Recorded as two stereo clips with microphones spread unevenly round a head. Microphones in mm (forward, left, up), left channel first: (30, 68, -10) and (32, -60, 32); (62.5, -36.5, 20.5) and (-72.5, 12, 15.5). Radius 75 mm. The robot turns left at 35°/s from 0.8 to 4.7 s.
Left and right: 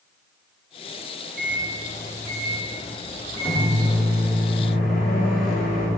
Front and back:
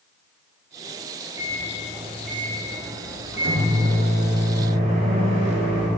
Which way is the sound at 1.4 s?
130° right.